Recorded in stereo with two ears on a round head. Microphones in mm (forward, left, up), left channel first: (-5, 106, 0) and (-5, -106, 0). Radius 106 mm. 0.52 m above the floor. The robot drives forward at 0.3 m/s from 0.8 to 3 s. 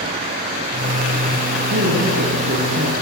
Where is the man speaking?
45° right (ahead or behind), 6 m.